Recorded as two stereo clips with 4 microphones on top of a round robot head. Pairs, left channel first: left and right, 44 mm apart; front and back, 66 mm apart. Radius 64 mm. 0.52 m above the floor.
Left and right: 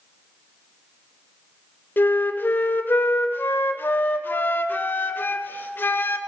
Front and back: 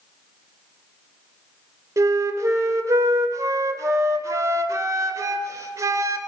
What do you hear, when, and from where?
2.0 s a flute: 135° left, 0.8 m